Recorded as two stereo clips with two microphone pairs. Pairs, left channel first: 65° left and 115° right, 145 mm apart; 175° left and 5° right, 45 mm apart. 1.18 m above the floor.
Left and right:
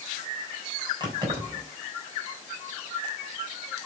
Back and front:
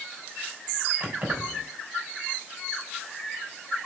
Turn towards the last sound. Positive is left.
turn(degrees=-60)